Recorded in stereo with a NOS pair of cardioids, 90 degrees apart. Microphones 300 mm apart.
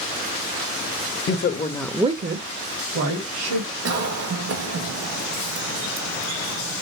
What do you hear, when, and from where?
1.3 s a woman speaking: 45° left, 1.4 m; by 3.7 s 80° right, 3 m
3.9 s a cough: 60° right, 1.5 m